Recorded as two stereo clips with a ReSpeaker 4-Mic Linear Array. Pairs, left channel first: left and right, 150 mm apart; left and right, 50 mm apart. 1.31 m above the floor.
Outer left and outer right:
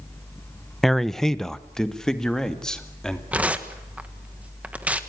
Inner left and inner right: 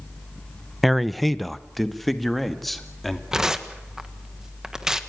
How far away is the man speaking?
About 0.6 m.